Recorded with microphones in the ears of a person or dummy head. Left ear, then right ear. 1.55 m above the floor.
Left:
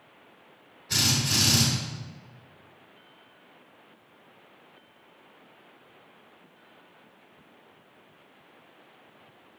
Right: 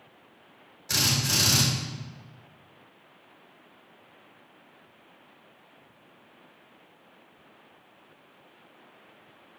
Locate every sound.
0.9 s a drill: 65° right (ahead or behind), 3.5 m